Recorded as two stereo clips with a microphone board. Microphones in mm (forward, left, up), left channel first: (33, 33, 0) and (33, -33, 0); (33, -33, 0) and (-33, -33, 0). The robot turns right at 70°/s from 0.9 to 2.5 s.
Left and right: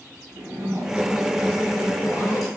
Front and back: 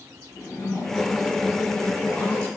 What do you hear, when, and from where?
0.3 s a zipper: 35° right, 2.5 m; by 2.5 s 70° left, 2.5 m